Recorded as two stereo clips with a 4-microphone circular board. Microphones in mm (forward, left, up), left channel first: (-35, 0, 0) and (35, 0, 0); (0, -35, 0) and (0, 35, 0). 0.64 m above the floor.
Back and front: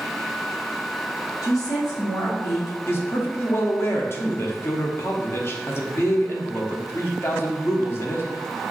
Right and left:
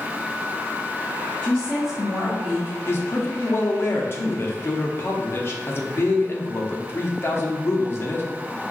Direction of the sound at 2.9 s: 135° right.